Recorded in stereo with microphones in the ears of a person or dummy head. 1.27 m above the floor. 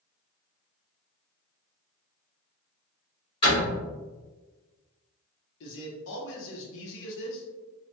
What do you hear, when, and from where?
3.4 s a door slam: 30° left (ahead or behind), 1.8 m
5.6 s a man speaking: 70° left (ahead or behind), 1.0 m